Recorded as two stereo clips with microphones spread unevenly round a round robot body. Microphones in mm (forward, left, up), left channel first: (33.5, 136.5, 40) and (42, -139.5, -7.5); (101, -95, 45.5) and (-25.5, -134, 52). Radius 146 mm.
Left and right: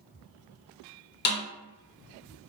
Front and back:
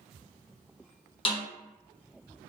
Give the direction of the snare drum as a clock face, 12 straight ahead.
11 o'clock.